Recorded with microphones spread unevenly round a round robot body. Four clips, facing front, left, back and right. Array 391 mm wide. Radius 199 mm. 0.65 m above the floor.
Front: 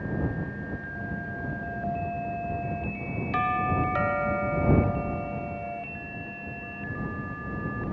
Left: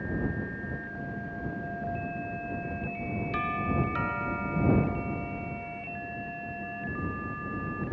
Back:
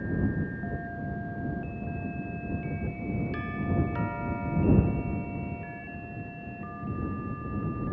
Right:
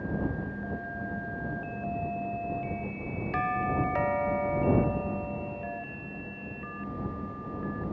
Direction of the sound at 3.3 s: 40° right.